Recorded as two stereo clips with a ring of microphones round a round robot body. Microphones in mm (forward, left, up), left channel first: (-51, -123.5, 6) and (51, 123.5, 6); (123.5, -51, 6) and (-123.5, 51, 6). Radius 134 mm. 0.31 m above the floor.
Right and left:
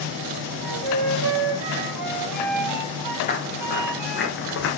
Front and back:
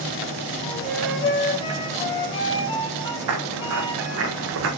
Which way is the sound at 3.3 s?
175° right.